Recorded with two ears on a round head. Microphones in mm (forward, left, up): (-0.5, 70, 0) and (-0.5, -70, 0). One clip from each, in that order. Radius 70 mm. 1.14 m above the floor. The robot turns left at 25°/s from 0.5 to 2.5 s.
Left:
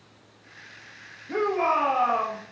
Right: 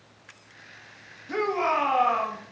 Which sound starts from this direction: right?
A shout, at 1.3 s.